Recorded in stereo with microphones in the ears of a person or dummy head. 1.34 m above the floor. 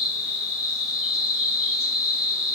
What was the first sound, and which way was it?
An insect, centre (ahead or behind).